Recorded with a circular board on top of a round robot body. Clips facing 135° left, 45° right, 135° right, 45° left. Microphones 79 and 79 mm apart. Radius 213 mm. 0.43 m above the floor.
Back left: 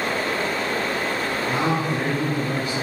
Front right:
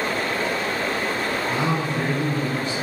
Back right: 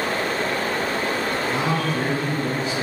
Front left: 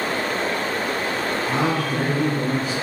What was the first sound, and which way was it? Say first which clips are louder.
A man speaking: back left 3 dB, front left 3 dB; 65° left.